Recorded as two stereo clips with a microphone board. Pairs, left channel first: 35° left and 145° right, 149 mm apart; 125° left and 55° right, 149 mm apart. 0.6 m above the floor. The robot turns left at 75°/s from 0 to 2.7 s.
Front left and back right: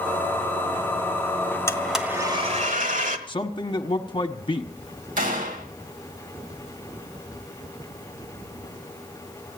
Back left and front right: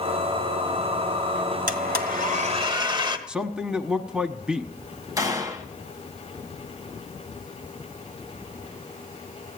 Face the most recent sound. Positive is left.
turn(degrees=-120)